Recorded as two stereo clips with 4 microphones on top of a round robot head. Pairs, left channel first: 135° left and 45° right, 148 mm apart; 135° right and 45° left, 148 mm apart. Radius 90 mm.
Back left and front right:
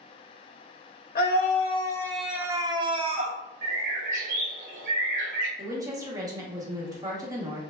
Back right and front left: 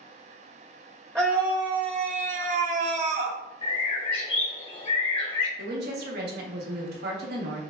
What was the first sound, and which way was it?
A scream, 120° left.